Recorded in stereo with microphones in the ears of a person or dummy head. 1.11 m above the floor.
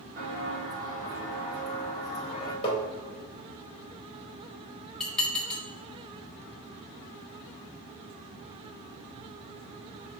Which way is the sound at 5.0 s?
5° left (ahead or behind).